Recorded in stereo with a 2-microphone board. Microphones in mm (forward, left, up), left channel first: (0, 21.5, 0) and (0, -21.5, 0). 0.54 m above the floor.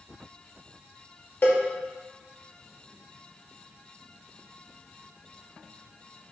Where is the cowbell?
55° left (ahead or behind), 1.1 m.